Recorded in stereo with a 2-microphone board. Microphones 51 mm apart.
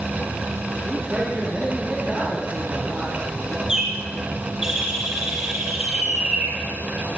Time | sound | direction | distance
0.8 | a man speaking | 10° right (ahead or behind) | 6 m
3.7 | a bird | 10° right (ahead or behind) | 9.5 m